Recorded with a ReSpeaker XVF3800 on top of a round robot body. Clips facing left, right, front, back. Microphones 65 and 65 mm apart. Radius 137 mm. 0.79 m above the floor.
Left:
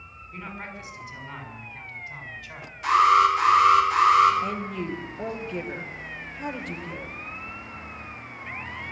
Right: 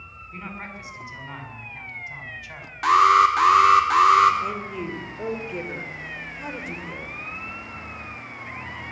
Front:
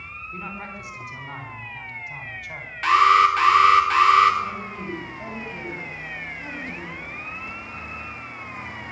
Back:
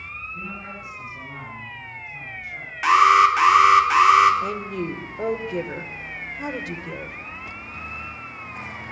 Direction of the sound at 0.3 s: 20° right.